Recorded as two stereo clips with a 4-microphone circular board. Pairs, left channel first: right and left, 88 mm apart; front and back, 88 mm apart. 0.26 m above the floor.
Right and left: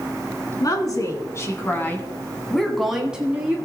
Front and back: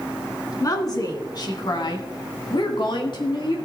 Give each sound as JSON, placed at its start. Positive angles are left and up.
{"t": 0.6, "sound": "a woman speaking", "azimuth_deg": -45, "distance_m": 2.5}